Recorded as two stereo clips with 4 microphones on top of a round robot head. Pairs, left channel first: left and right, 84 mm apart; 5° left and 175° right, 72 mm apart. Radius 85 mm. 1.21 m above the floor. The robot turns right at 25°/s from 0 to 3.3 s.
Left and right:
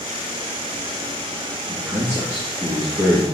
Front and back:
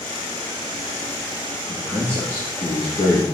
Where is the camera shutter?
I don't hear a camera shutter.